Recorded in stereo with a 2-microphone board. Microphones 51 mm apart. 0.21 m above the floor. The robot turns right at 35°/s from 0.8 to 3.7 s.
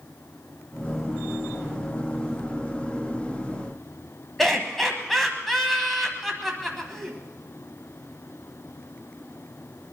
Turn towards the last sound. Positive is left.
turn(degrees=5)  # may be behind; listen again after turning